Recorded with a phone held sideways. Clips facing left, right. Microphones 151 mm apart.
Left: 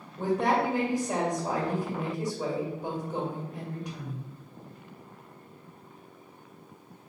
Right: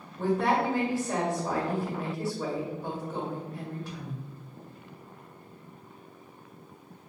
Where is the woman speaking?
15° left (ahead or behind), 1.5 m.